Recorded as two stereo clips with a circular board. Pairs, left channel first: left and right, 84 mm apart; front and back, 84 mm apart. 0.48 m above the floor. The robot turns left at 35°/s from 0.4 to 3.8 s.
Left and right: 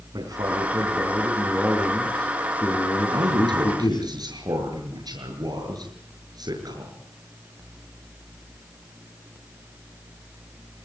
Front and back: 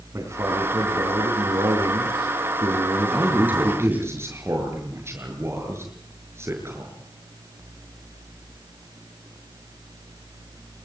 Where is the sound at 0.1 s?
125° right, 5 m; by 4.1 s 115° left, 5 m.